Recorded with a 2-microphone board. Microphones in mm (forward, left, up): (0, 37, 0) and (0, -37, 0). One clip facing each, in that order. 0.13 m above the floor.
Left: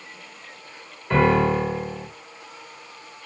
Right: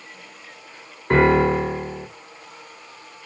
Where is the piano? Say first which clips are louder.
Right 3 dB; 50° right (ahead or behind), 2.0 m.